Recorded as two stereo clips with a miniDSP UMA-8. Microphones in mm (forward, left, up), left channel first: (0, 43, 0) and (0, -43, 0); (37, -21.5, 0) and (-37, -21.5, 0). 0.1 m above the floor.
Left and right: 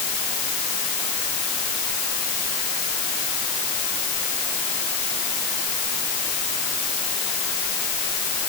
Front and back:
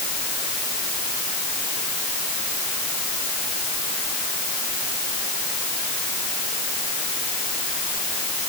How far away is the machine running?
No machine running in this recording.